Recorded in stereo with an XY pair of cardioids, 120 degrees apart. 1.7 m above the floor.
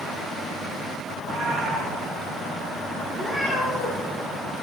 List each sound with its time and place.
1.1 s a cat meowing: 70° right, 5.5 m
3.1 s a cat meowing: straight ahead, 6 m